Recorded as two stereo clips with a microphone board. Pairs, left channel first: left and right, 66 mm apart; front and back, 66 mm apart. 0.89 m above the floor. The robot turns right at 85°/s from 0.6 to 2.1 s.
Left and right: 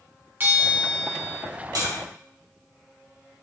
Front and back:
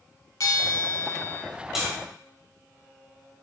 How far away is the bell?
About 2.5 m.